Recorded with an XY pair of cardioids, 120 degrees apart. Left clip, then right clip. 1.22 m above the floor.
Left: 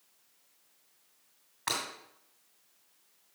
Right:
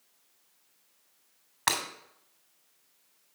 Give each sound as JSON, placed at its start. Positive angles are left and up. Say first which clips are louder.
{"t": 1.7, "sound": "breaking glass", "louder": "right 5 dB", "azimuth_deg": -50, "distance_m": 2.5}